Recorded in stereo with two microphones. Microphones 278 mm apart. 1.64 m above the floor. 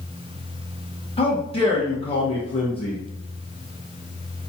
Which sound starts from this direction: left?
A man speaking, at 1.2 s.